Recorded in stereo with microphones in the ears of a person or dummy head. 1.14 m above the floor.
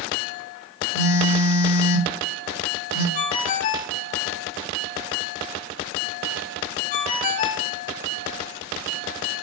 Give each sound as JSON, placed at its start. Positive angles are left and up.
{"t": 0.9, "sound": "a phone buzzing", "side_deg": 60, "distance_m": 1.7}
{"t": 3.1, "sound": "a ringtone", "side_deg": 45, "distance_m": 1.1}